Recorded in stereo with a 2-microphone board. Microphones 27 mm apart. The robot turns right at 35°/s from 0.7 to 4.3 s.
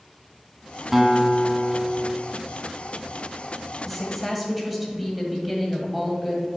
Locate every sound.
0.9 s a guitar: 10° right, 0.9 m; by 2.1 s 30° left, 0.9 m
3.9 s a woman speaking: 5° right (ahead or behind), 1.6 m; by 6.5 s 10° right (ahead or behind), 1.6 m